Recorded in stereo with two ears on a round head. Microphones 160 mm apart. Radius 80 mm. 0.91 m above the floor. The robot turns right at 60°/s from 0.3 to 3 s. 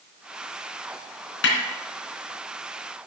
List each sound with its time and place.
1.4 s a snare drum: 70° left (ahead or behind), 3.5 m; by 1.6 s 80° left, 3.5 m